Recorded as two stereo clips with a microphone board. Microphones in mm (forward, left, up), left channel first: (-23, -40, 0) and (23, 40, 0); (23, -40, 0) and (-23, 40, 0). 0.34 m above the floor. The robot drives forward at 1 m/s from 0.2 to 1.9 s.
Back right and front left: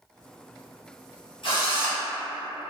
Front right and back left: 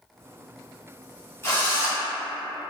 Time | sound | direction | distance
1.4 | a drill | 120° right | 1.4 m